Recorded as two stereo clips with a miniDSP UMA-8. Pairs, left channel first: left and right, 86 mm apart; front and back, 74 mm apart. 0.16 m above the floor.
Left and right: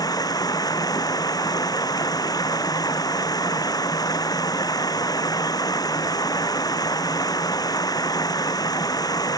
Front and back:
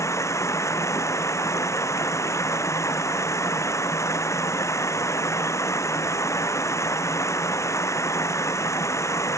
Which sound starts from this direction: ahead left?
Running water, at 0.0 s.